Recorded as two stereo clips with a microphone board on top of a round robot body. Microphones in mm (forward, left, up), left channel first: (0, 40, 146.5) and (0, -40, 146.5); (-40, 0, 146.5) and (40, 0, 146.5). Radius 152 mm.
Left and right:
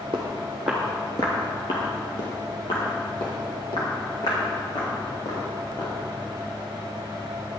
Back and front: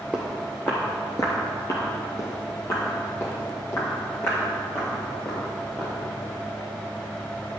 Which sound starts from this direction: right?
Footsteps, at 0.1 s.